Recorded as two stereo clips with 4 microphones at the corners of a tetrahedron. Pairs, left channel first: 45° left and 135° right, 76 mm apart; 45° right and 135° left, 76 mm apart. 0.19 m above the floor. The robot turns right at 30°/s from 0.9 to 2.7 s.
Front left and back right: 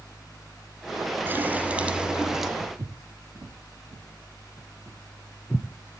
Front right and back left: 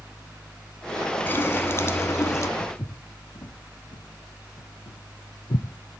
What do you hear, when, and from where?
1.3 s a running tap: 90° right, 0.8 m; by 2.5 s 50° right, 0.8 m
2.6 s footsteps: 105° right, 2 m; by 6.0 s 30° right, 1.3 m